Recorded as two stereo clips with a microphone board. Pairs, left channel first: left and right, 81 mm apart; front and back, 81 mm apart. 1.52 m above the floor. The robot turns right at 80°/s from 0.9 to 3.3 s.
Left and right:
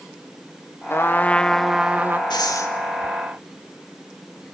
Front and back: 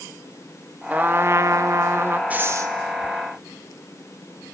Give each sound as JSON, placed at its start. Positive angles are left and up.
{"t": 0.9, "sound": "a trumpet", "azimuth_deg": 120, "distance_m": 0.8}
{"t": 2.3, "sound": "breathing", "azimuth_deg": 110, "distance_m": 1.9}